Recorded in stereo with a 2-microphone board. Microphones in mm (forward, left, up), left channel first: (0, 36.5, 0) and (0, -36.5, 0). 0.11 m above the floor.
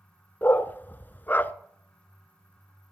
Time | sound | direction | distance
0.4 | a dog barking | 25° left (ahead or behind) | 0.6 m